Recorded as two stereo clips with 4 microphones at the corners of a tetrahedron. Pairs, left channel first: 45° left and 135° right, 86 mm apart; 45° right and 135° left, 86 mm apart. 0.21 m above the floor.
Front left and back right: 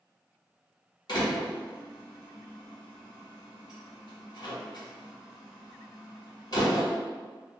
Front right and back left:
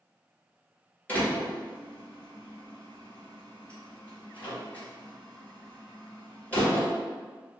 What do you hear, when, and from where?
1.1 s a door slam: 25° left, 1.8 m